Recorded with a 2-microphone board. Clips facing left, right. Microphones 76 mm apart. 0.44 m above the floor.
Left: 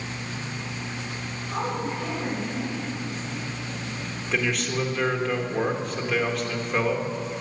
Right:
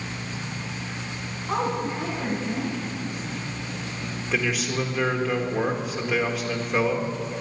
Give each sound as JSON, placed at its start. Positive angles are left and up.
{"t": 1.5, "sound": "a woman speaking", "side_deg": -55, "distance_m": 3.5}
{"t": 4.3, "sound": "a man speaking", "side_deg": -5, "distance_m": 1.4}